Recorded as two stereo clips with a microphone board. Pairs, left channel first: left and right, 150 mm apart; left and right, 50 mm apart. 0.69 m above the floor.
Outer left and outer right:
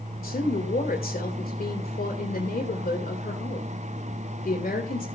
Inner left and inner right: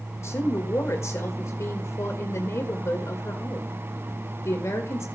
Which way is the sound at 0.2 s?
75° left (ahead or behind).